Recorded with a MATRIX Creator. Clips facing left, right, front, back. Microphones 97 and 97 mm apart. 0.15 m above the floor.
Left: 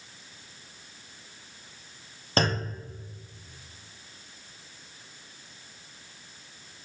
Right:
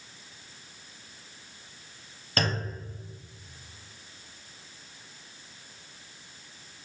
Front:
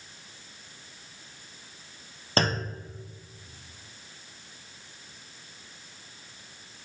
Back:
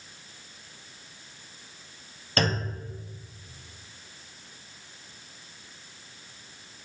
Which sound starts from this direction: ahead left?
A clunk, at 2.4 s.